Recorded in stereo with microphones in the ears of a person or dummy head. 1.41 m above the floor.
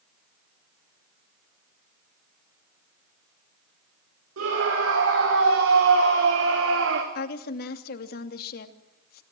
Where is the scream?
80° right, 4.5 m; by 7.0 s 75° right (ahead or behind), 2 m.